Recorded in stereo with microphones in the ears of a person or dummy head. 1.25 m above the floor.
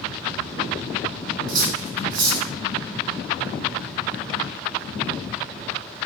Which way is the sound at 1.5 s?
50° right (ahead or behind).